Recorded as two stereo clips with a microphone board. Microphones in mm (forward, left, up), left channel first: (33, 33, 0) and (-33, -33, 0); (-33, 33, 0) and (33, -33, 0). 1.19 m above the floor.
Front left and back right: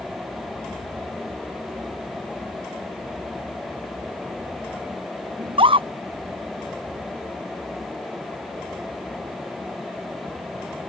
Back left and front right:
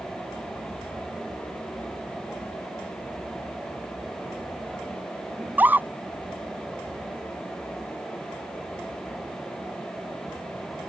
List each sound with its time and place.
5.4 s a scream: 115° right